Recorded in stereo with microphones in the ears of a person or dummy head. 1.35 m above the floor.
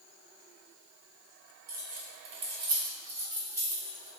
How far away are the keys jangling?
About 0.6 m.